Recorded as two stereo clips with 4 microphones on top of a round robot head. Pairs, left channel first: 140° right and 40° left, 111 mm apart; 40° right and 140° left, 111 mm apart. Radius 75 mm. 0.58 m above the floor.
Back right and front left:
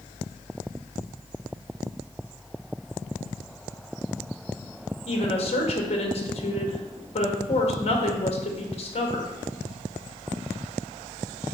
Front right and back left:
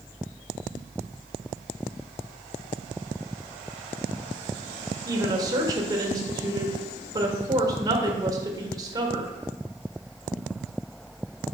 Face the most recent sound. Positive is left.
turn(degrees=-165)